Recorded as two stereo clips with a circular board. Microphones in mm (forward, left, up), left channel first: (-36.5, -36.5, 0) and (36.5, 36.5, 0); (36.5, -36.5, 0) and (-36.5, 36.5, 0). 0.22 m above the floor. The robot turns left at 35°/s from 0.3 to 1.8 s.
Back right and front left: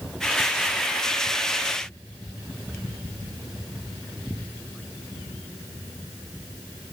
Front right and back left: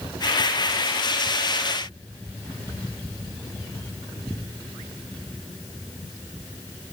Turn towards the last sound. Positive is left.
No sound to turn to.